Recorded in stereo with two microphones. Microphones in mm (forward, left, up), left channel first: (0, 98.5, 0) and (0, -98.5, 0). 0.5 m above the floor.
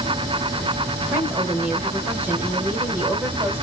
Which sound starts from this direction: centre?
A woman speaking, at 1.1 s.